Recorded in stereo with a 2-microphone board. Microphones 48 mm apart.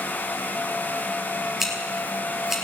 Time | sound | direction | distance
1.6 | scissors | 5° right (ahead or behind) | 3 m